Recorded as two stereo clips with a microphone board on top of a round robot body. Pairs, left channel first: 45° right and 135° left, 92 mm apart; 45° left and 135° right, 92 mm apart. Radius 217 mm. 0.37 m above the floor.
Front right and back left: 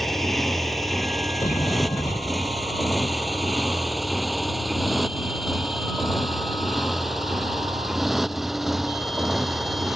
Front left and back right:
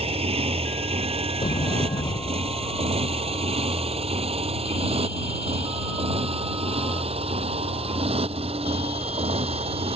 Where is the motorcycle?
135° right; by 10.0 s 140° right.